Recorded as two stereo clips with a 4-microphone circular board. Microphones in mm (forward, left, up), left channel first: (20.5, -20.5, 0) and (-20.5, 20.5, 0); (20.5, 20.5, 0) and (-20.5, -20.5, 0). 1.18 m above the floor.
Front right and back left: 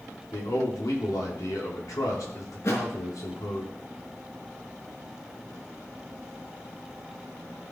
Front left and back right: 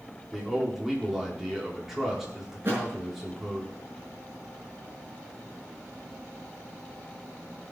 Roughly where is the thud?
Right.